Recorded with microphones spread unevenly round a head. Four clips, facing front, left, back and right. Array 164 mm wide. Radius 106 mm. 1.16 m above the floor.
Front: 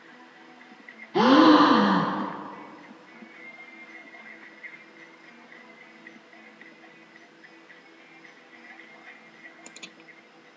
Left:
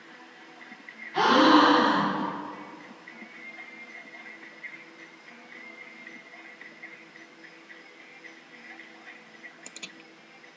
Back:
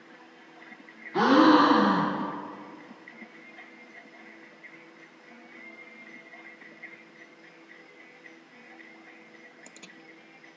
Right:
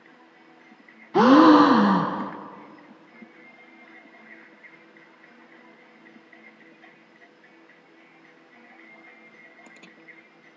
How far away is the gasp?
About 0.5 m.